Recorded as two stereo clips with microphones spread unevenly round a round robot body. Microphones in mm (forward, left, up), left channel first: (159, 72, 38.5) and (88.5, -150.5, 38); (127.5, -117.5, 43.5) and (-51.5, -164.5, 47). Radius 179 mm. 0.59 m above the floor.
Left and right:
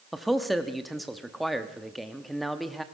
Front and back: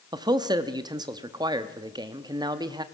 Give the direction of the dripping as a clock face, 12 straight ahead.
No dripping in this recording.